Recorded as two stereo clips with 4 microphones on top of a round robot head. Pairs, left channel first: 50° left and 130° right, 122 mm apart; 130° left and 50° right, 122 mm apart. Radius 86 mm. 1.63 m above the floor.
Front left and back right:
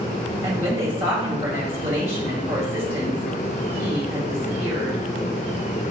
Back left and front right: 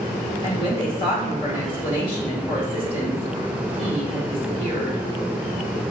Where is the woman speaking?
175° right, 1.5 m.